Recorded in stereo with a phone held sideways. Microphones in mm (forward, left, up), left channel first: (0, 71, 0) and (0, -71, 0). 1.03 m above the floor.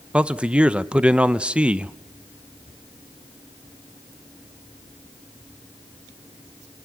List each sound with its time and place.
0.1 s a man speaking: 10° right (ahead or behind), 0.7 m